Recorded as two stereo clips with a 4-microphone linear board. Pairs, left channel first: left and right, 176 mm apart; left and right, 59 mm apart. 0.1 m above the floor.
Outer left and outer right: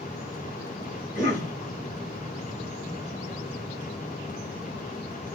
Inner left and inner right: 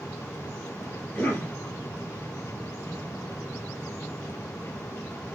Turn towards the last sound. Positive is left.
turn(degrees=45)  # may be behind; listen again after turning